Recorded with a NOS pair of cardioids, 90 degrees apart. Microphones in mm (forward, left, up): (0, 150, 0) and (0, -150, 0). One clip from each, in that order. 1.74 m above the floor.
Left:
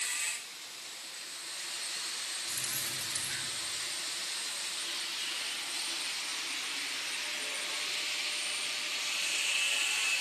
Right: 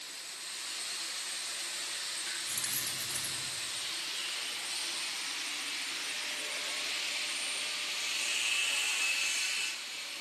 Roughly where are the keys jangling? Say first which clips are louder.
Even; ahead.